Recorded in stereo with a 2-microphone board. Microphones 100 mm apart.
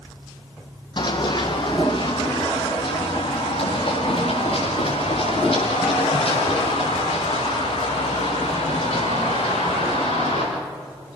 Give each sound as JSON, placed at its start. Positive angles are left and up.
{"t": 1.0, "sound": "running footsteps", "side_deg": 45, "distance_m": 2.5}